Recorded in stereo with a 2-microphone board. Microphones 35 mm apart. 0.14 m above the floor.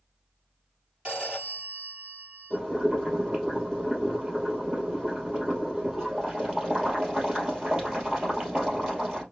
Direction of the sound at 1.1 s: 25° right (ahead or behind).